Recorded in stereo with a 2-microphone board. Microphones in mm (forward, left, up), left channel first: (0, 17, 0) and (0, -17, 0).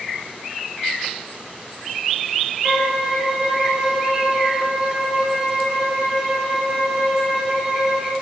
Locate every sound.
2.6 s a violin: 15° right (ahead or behind), 0.7 m